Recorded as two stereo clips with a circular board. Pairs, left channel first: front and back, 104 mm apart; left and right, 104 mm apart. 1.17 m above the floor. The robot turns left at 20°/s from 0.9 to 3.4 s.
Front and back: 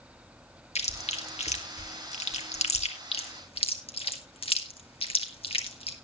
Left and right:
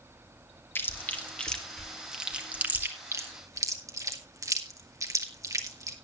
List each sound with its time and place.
0.8 s chewing: 20° left, 1.7 m; by 6.0 s 30° right, 1.7 m